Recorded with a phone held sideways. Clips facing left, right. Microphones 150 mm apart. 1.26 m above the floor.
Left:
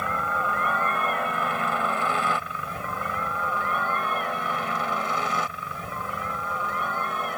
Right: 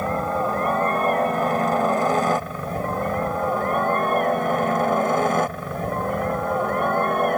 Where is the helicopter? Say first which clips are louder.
Right 6 dB; 35° right (ahead or behind); by 7.4 s 55° right (ahead or behind).